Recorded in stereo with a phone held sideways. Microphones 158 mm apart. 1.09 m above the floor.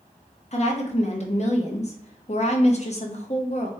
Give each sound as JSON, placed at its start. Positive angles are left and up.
{"t": 0.5, "sound": "a woman speaking", "side_deg": 45, "distance_m": 0.9}